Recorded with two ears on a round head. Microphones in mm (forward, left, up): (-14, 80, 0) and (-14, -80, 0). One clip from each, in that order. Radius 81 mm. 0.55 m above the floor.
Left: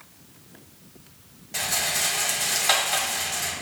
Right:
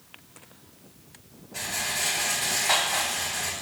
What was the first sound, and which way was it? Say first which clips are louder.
A rattle: left 4 dB; 75° left (ahead or behind).